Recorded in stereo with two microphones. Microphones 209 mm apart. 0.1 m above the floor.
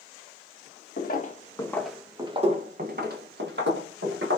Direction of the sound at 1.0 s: 45° left (ahead or behind).